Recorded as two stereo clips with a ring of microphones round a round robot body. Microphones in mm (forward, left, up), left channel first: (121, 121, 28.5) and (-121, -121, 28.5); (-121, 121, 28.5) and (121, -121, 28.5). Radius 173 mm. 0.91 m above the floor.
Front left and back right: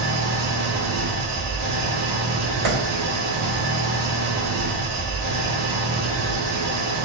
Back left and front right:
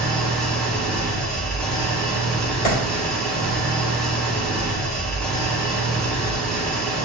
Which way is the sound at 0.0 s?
140° right.